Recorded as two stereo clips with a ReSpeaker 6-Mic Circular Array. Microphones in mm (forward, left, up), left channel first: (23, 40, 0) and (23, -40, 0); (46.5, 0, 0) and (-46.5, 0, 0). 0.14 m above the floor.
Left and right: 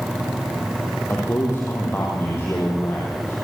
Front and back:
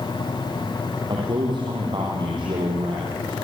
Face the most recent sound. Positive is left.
turn(degrees=150)